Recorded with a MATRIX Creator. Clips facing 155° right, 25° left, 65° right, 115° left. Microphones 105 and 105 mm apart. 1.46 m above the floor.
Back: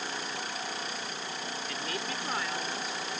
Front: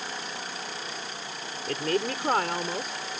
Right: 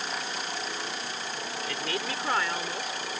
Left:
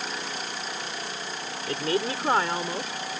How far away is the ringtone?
I don't hear a ringtone.